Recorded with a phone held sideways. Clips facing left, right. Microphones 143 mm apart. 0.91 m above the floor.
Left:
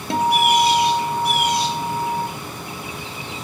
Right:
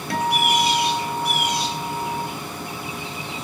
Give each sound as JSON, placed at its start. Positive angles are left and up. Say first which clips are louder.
{"t": 0.1, "sound": "a guitar", "louder": "left 4 dB", "side_deg": 25, "distance_m": 1.3}